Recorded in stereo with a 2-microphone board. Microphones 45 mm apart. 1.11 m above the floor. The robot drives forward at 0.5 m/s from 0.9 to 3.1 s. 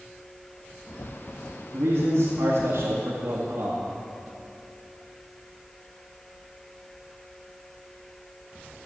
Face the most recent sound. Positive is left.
turn(degrees=-70)  # may be behind; listen again after turning